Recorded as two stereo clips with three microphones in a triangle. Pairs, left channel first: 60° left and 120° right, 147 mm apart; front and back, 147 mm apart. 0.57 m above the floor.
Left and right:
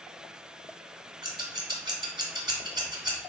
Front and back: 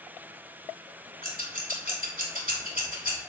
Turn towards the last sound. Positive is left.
turn(degrees=180)